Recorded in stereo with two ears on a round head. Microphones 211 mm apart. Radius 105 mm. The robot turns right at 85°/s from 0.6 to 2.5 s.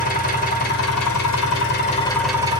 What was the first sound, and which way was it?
An engine running, 35° left.